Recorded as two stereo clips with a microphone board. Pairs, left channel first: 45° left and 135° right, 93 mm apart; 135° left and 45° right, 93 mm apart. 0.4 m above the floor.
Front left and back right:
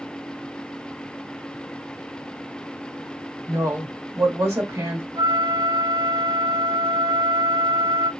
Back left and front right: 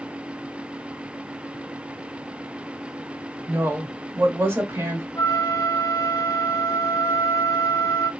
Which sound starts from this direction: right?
A woman speaking, at 3.5 s.